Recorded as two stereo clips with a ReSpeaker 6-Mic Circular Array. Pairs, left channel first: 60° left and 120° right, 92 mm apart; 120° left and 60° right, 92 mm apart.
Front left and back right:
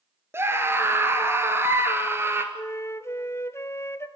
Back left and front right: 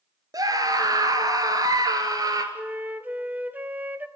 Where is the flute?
10° left, 0.9 m.